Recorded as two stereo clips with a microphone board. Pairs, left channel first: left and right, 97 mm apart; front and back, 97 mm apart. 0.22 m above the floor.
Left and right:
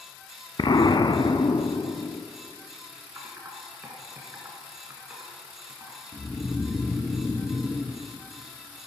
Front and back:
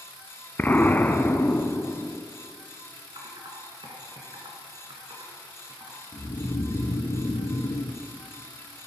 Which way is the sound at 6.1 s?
30° left.